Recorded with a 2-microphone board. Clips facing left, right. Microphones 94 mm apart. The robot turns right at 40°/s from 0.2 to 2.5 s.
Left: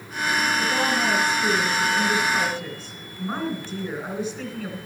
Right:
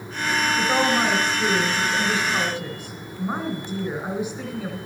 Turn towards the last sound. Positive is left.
turn(degrees=-25)